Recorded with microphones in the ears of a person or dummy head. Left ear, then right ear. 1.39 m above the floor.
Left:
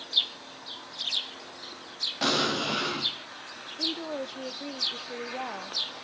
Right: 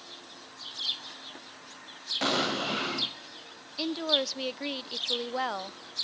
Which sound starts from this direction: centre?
An explosion, at 2.2 s.